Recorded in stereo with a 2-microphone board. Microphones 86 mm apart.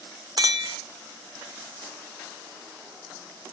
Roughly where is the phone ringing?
No phone ringing in this recording.